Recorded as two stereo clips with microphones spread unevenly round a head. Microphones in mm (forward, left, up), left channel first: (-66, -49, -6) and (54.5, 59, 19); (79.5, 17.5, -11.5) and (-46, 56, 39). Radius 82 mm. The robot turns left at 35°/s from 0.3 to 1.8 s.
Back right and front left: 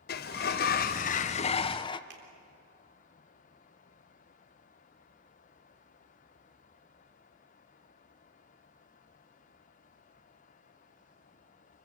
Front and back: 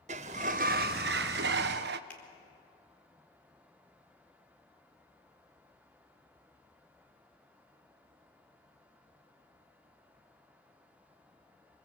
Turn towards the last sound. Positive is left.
turn(degrees=65)